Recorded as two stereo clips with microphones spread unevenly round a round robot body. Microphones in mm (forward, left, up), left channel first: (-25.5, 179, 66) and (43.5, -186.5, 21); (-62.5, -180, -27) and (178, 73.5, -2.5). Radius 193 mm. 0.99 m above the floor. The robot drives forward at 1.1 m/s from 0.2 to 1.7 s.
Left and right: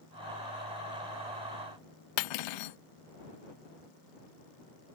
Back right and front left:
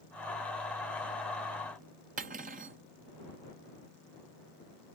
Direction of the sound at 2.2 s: 115° left.